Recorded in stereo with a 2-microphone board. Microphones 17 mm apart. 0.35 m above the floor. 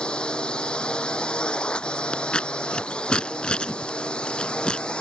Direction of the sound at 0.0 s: 75° left (ahead or behind).